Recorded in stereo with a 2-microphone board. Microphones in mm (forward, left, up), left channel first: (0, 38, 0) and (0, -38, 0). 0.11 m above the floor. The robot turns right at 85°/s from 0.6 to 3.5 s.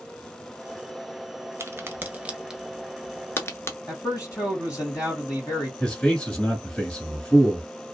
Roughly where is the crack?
Right.